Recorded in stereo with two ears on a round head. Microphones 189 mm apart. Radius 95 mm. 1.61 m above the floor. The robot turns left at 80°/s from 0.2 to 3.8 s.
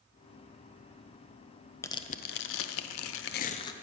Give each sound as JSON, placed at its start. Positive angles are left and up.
{"t": 1.8, "sound": "tearing paper", "azimuth_deg": 170, "distance_m": 0.5}